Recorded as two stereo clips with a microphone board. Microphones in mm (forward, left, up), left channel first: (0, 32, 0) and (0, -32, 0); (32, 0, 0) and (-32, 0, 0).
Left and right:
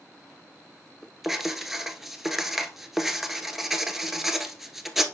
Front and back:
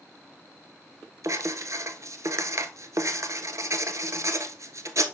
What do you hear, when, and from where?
1.2 s writing: 175° right, 0.7 m